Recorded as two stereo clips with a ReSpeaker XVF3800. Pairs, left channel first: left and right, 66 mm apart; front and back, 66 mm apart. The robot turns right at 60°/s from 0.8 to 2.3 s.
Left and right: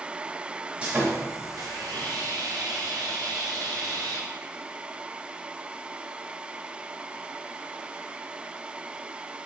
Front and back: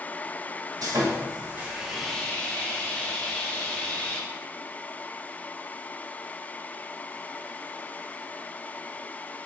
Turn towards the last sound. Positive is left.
turn(degrees=-70)